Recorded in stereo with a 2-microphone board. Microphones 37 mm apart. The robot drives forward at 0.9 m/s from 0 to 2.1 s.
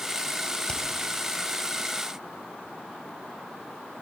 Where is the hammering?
15° left (ahead or behind), 5 m.